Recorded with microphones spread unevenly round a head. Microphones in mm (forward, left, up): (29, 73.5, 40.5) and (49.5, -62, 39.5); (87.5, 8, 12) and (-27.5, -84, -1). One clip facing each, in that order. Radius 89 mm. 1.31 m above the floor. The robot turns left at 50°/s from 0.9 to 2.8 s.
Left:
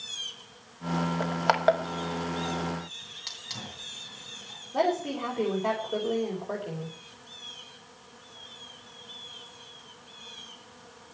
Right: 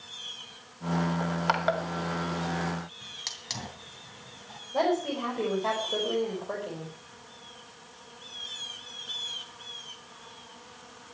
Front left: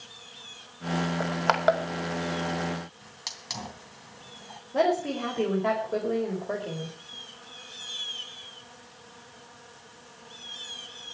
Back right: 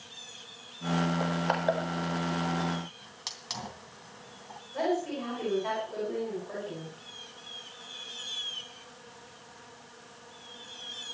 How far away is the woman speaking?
About 5.5 m.